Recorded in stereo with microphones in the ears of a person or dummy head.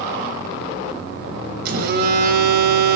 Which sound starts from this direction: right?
A phone buzzing, at 1.6 s.